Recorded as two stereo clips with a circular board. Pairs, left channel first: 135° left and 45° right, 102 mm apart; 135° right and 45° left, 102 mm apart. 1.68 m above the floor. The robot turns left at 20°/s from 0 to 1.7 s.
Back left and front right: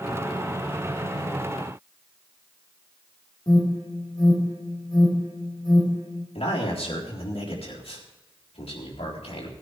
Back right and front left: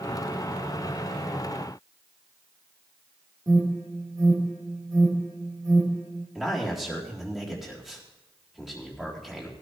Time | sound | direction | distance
3.5 | an alarm | 90° left | 4 m
6.3 | a man speaking | 130° left | 3.5 m